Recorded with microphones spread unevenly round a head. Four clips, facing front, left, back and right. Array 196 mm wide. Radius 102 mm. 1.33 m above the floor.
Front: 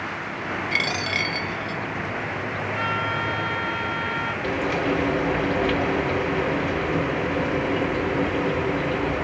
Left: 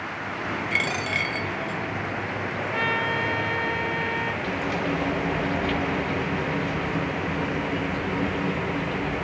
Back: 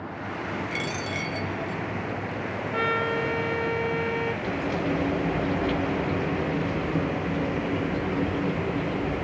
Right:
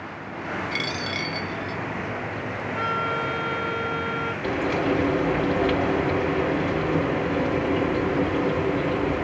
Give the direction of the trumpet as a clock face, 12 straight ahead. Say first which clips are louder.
Right 1 dB, back 2 dB; 6 o'clock.